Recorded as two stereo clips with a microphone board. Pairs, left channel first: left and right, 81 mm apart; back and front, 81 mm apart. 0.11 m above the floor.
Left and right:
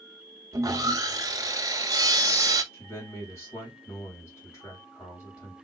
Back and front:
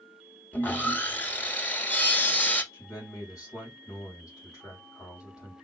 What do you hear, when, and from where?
0.5 s sawing: 120° right, 0.9 m
2.7 s a man speaking: 135° left, 3.5 m